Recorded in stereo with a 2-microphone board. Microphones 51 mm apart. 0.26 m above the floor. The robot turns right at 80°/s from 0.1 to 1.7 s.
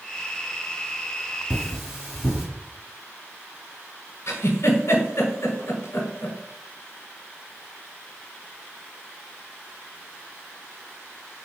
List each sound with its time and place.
1.5 s cutlery clinking: 15° right (ahead or behind), 1.3 m; by 2.5 s centre (ahead or behind), 1.3 m
4.3 s a giggle: 65° left (ahead or behind), 0.9 m